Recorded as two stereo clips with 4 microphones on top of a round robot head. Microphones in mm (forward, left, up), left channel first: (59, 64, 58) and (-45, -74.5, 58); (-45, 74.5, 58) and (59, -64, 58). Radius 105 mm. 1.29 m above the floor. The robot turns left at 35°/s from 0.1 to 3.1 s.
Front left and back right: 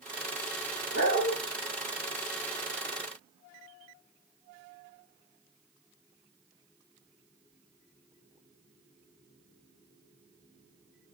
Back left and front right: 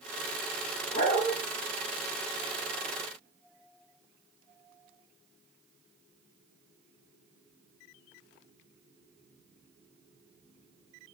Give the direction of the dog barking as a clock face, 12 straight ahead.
10 o'clock.